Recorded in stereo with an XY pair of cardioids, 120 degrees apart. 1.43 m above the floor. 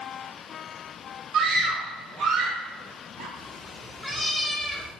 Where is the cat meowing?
5° right, 2 m.